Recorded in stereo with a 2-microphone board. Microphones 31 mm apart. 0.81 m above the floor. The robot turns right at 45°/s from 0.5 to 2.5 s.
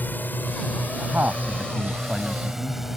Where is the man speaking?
75° right; by 2.8 s 10° right.